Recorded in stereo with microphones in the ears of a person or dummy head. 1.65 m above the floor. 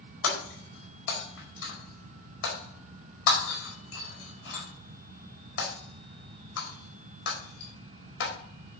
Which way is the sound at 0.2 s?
75° left (ahead or behind).